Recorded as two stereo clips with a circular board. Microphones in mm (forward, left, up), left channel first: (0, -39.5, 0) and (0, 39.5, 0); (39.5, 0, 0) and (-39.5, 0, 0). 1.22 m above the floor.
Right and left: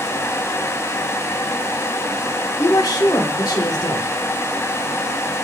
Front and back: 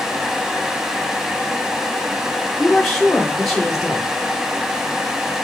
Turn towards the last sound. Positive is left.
turn(degrees=-85)